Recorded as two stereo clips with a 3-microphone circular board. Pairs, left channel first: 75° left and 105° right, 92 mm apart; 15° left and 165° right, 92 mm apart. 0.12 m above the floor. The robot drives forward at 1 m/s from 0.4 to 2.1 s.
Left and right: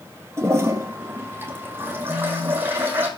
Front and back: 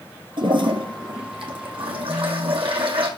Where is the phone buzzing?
155° right, 2.5 m.